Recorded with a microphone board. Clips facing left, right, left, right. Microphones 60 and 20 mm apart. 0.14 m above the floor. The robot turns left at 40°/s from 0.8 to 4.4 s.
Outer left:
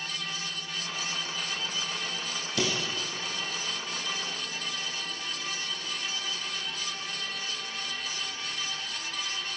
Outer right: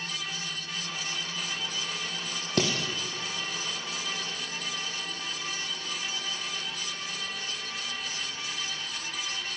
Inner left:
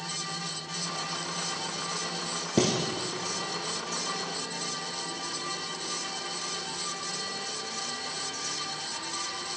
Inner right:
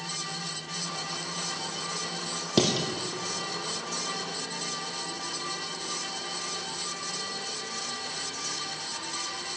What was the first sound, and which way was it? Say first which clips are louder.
Dishes clattering: outer right 2 dB, inner right 1 dB; 55° right (ahead or behind).